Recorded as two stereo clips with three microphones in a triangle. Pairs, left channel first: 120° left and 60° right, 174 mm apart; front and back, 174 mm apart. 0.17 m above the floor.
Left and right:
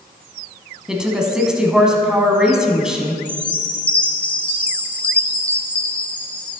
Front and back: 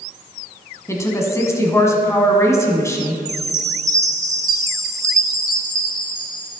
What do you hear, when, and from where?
0.9 s a woman speaking: 15° left, 1.2 m
3.2 s a chime: 175° right, 0.8 m